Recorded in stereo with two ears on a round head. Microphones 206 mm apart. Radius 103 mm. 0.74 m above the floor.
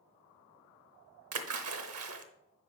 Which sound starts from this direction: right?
A splash, at 1.3 s.